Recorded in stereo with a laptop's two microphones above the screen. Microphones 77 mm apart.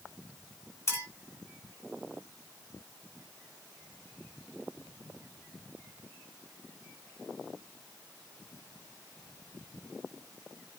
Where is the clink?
35° left (ahead or behind), 1.8 m.